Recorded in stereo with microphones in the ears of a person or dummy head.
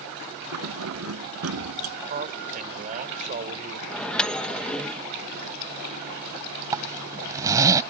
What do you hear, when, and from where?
0.5 s keys jangling: 80° right
2.1 s a man speaking: 45° right (ahead or behind)
3.9 s a microwave: 5° left (ahead or behind)
6.7 s a zipper: 20° right (ahead or behind)